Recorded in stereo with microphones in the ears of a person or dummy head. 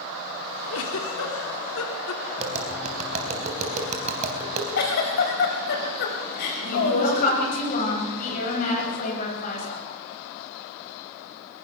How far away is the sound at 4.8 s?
About 4 m.